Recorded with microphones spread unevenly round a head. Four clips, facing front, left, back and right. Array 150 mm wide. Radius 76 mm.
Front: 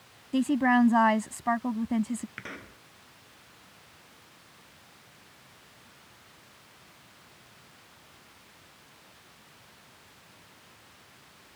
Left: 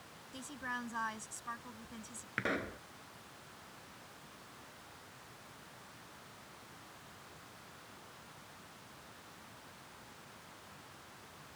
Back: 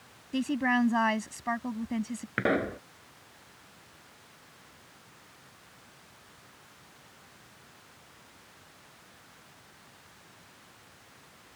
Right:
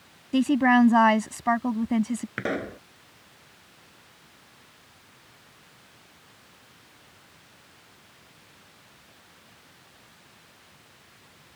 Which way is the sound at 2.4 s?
150° right.